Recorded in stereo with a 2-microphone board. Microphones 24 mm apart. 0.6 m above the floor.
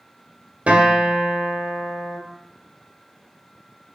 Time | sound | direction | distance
0.7 | a guitar | 70° right (ahead or behind) | 1.1 m